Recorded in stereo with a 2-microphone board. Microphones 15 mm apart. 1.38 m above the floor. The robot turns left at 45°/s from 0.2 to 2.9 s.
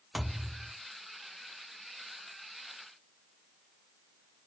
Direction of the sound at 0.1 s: 20° right (ahead or behind).